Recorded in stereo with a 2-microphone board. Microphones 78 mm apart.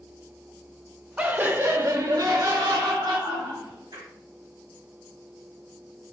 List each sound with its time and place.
1.2 s laughter: 15° right (ahead or behind), 1.0 m; by 4.1 s 75° right (ahead or behind), 3 m